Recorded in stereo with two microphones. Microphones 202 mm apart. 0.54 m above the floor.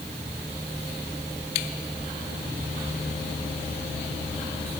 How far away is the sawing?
No sawing in this recording.